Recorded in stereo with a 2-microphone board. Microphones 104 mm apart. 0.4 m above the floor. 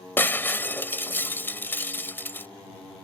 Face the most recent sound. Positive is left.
turn(degrees=20)  # may be behind; listen again after turning